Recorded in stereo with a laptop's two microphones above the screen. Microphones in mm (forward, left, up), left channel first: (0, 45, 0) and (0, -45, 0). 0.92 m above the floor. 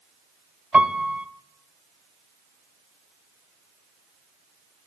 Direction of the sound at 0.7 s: 15° right (ahead or behind).